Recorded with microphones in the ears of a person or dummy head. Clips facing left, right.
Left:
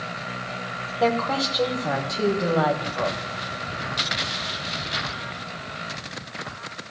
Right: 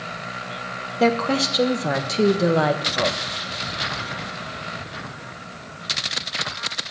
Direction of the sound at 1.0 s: 35° right (ahead or behind).